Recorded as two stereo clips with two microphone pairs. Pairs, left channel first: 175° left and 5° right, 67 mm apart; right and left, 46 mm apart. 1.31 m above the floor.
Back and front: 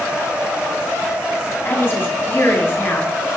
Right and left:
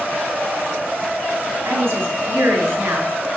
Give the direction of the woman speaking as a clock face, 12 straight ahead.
8 o'clock.